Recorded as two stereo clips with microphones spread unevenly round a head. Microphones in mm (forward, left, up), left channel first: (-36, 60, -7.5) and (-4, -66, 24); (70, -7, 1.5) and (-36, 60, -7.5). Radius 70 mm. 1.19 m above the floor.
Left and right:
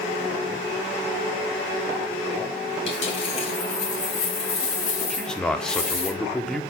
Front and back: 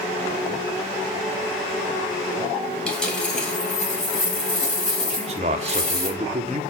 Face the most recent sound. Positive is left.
turn(degrees=180)